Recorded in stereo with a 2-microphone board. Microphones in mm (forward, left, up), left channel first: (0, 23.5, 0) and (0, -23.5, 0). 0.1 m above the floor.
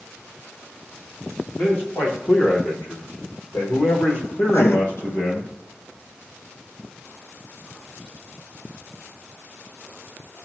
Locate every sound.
1.6 s a man speaking: 45° left (ahead or behind), 6 m; by 5.5 s 60° left (ahead or behind), 3.5 m
4.5 s writing: 60° left (ahead or behind), 0.5 m